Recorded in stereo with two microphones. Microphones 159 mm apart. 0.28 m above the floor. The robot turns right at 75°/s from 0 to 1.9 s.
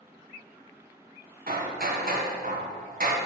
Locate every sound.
1.5 s hammering: 105° right, 1.4 m; by 3.1 s 70° right, 1.4 m